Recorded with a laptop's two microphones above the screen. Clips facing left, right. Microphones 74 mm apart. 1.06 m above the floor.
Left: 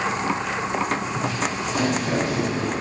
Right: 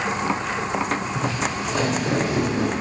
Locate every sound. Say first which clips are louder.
1.1 s footsteps: even; 35° right (ahead or behind), 4 m; by 2.7 s 30° right (ahead or behind), 2 m